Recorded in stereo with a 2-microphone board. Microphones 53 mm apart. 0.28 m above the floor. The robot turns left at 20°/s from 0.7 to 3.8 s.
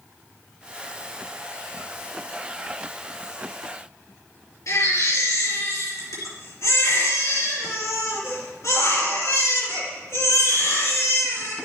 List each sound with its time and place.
4.7 s a baby crying: 70° left (ahead or behind), 3 m